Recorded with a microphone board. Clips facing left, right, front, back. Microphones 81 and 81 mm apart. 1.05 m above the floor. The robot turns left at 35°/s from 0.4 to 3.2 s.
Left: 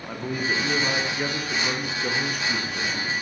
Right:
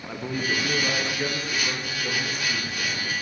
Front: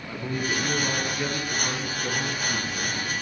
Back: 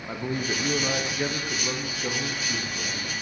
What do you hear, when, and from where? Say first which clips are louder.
0.1 s a man speaking: left 1 dB, even; 175° left, 0.7 m; by 3.1 s 80° left, 0.7 m